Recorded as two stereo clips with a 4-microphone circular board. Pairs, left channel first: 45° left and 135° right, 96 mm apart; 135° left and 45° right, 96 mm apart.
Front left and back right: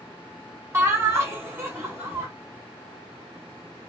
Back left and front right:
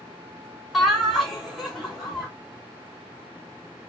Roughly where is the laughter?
Behind right.